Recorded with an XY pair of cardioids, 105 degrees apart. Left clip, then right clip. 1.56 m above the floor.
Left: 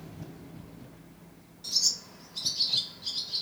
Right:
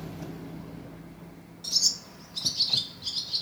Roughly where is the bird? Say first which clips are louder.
Right 2 dB; ahead right.